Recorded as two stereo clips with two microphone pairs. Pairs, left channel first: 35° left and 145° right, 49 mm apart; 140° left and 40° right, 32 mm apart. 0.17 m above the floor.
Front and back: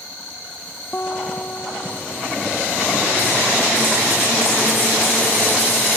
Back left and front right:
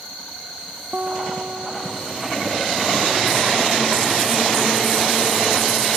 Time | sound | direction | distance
0.9 | a guitar | 15° right | ?